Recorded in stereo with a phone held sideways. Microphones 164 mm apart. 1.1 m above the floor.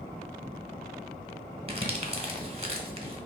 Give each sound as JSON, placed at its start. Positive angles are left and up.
{"t": 1.7, "sound": "crumpling", "side_deg": -40, "distance_m": 1.4}